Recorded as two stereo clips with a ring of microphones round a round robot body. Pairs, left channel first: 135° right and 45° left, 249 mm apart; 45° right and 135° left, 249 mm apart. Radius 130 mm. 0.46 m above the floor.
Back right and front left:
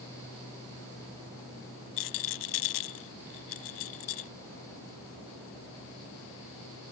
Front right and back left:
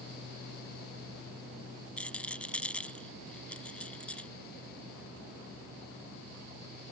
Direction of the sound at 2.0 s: 130° right.